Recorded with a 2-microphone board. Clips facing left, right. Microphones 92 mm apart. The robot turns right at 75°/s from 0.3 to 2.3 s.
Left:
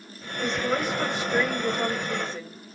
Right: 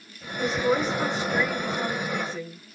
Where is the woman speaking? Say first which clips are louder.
Right 3 dB; 10° right, 1.2 m; by 2.8 s 130° left, 1.2 m.